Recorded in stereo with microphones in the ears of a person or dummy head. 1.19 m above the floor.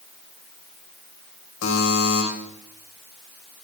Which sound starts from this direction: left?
A buzzer, at 1.6 s.